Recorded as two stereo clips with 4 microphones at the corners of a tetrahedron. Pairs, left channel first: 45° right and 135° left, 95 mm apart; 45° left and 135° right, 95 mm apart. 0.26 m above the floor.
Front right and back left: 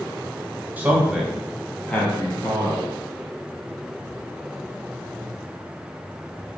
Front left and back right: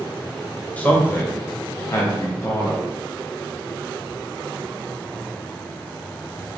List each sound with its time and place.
0.8 s a man speaking: 95° left, 1.1 m; by 2.9 s 5° right, 1.6 m